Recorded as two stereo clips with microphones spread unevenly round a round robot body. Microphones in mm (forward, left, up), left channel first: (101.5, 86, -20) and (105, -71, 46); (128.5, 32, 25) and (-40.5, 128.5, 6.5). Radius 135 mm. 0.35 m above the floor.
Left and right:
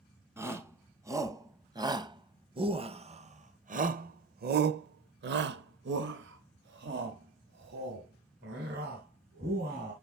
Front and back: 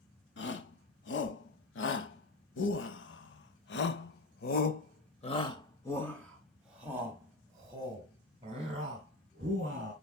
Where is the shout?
5° right, 2.5 m; by 9.9 s 150° right, 3 m.